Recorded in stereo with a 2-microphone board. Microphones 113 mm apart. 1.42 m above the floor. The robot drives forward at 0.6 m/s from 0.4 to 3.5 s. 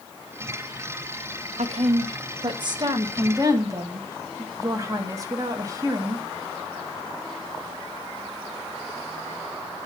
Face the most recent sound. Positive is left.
turn(degrees=-30)  # may be behind; listen again after turning